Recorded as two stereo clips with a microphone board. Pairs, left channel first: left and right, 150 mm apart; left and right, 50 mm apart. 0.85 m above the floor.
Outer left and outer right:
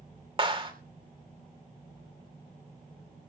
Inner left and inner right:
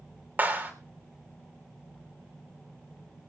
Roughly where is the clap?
Right.